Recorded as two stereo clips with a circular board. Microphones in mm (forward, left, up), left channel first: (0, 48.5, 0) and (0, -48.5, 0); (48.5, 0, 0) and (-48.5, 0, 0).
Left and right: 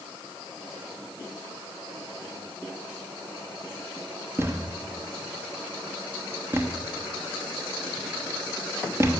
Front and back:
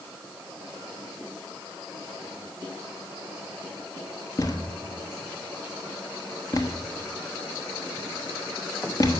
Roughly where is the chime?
I don't hear a chime.